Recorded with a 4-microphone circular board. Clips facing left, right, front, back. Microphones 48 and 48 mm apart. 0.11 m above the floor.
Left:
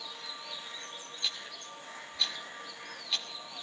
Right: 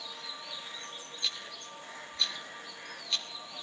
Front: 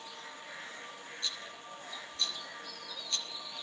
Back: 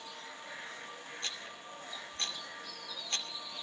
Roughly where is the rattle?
Behind.